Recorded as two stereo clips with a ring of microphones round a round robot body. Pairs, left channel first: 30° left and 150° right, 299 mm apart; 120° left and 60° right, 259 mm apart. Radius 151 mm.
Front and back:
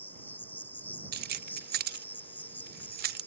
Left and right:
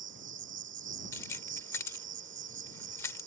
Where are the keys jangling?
170° right.